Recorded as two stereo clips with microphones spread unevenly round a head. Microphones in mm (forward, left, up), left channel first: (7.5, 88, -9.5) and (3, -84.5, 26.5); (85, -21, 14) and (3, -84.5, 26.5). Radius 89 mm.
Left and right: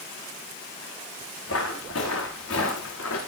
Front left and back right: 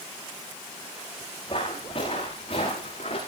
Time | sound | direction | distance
1.5 | footsteps | 100° left | 8 m